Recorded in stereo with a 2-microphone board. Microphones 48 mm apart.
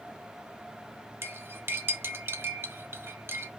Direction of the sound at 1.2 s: 55° right (ahead or behind).